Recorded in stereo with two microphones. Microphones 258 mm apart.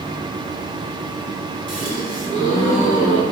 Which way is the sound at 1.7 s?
30° left (ahead or behind).